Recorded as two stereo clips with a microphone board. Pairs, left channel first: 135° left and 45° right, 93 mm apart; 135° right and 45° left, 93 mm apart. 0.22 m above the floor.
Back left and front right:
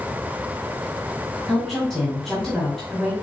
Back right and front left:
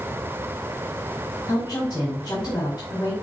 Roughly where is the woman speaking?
Behind right.